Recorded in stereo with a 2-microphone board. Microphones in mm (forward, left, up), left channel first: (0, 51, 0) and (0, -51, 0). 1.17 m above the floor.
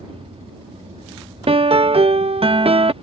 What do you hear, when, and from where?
0.0 s an aircraft: 60° right (ahead or behind)
1.5 s a piano: 60° right (ahead or behind)